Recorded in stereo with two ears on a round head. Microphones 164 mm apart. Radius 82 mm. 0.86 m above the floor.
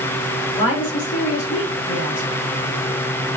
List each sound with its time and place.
0.6 s a woman speaking: 70° left (ahead or behind), 1.7 m